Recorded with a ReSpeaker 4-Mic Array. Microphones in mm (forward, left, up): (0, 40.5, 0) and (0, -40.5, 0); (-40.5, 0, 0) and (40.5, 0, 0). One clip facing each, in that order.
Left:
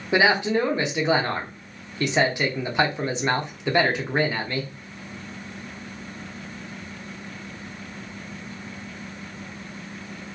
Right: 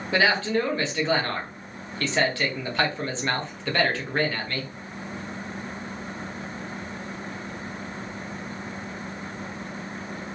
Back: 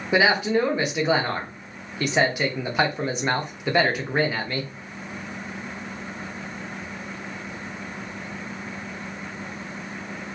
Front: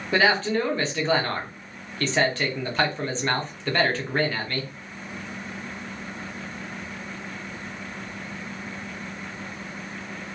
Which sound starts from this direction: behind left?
A man speaking, at 0.1 s.